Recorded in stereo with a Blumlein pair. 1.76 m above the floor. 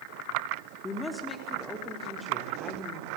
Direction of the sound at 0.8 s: 10° left.